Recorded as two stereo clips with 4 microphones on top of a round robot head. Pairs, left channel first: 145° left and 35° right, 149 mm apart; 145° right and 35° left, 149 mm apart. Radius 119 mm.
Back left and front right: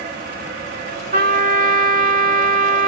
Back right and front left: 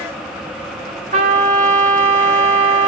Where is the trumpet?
5° right, 1.8 m.